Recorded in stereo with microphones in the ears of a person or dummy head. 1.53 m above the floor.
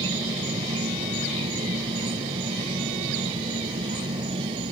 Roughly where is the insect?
Right.